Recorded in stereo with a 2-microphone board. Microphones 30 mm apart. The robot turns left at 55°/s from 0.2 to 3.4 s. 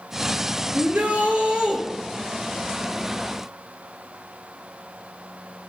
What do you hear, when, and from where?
0.7 s a shout: 95° right, 3 m; by 1.8 s 150° right, 3 m